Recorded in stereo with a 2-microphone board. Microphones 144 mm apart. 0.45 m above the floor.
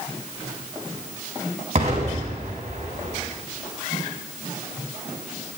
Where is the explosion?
50° right (ahead or behind), 4 m.